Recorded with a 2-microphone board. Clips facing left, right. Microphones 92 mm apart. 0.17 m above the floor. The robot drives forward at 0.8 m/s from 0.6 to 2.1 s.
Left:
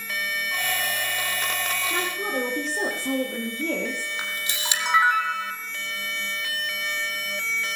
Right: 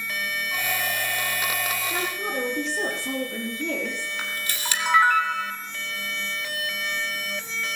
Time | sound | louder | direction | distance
1.9 | a woman speaking | left 1 dB | 50° left (ahead or behind) | 4.5 m
4.2 | a camera shutter | even | 20° left (ahead or behind) | 3.5 m